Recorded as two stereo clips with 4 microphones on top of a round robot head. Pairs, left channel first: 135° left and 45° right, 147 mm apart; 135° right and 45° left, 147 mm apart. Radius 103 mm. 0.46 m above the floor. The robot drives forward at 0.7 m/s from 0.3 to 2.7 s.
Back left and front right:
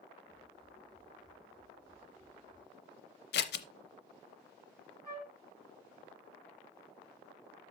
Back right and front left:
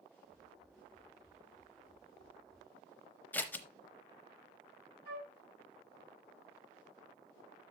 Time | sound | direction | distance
3.3 | scissors | 145° left | 0.7 m
5.0 | a flute | 65° left | 4 m